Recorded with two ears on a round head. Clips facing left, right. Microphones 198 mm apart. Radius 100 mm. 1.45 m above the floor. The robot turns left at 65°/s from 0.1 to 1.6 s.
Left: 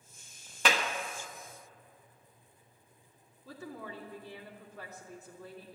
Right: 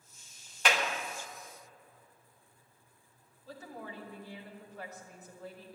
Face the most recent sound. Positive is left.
turn(degrees=80)